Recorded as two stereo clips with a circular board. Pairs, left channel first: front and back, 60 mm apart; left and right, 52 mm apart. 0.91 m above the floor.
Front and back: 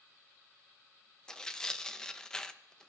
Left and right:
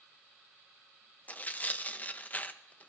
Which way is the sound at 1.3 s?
70° left.